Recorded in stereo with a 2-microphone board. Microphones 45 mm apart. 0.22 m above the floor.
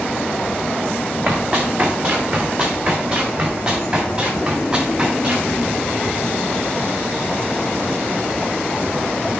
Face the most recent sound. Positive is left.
turn(degrees=-30)  # may be behind; listen again after turning